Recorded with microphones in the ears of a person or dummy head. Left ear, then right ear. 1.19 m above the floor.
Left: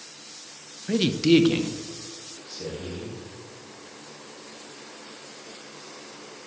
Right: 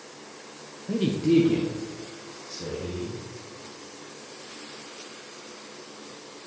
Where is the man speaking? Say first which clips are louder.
Left 3 dB; 60° left (ahead or behind), 0.9 m; by 3.1 s 10° left (ahead or behind), 3 m.